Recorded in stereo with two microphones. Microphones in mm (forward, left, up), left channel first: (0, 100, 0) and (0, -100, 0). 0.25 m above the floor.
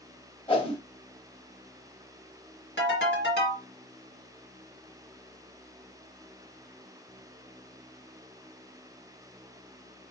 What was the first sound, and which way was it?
A whoosh, 25° left (ahead or behind).